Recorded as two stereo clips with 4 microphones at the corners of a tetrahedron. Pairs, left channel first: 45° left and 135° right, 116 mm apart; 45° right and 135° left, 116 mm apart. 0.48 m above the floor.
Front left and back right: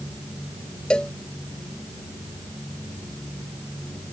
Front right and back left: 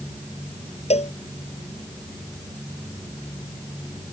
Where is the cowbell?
35° right.